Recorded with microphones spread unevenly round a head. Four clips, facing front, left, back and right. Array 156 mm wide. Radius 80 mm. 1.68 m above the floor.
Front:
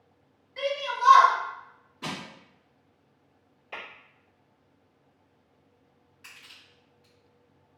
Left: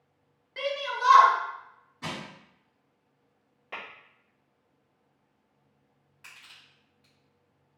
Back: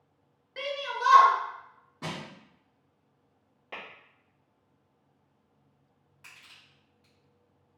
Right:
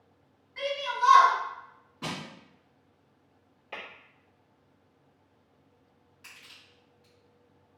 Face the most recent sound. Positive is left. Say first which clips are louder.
# left 1 dB, front 2 dB
turn(degrees=170)